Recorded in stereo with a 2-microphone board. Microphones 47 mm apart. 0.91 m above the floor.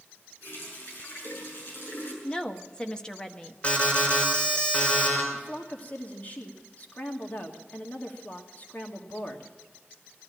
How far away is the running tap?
About 7 m.